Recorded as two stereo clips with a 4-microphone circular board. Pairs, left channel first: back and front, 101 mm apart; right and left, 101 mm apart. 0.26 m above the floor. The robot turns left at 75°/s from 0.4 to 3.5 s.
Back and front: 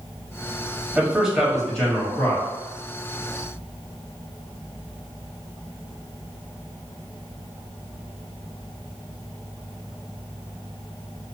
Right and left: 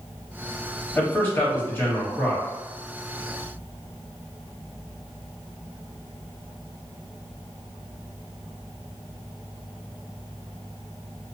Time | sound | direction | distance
0.9 | a man speaking | 50° right | 0.9 m